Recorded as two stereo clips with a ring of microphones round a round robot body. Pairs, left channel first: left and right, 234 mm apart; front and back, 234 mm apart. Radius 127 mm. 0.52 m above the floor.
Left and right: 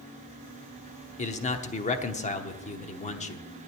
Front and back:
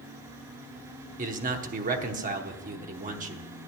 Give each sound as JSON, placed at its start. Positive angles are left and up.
{"t": 1.2, "sound": "a man speaking", "azimuth_deg": 135, "distance_m": 0.9}